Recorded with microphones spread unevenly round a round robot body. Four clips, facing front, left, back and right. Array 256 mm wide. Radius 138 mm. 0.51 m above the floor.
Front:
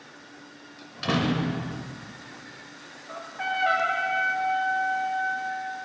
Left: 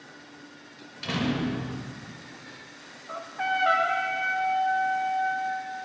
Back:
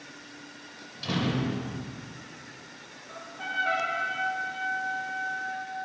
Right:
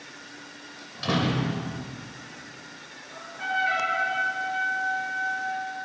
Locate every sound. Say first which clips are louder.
0.8 s a door slam: right 4 dB, front 4 dB; 35° right, 1.7 m
3.1 s a trumpet: left 2 dB, front 6 dB; 35° left, 1.3 m